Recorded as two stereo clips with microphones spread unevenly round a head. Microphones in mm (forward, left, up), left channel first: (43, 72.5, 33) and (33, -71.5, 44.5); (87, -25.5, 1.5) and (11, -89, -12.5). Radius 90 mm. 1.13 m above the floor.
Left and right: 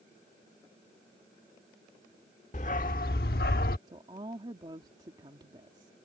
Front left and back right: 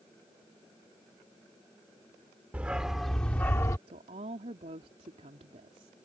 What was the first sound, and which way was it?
A dog barking, 135° left.